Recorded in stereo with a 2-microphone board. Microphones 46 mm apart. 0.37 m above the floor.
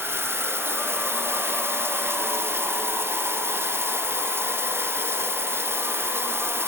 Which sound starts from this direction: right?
Running water, at 0.0 s.